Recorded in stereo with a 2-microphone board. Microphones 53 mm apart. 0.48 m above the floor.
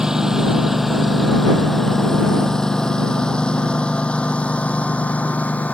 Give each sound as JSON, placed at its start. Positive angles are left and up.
{"t": 0.0, "sound": "a lawn mower", "side_deg": -10}